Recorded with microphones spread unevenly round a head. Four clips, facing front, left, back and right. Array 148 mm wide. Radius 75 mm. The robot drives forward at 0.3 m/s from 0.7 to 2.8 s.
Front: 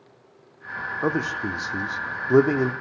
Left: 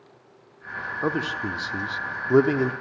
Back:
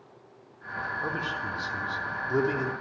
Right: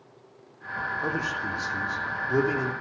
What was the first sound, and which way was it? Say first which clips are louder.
A man speaking: left 6 dB, front 11 dB; 30° left.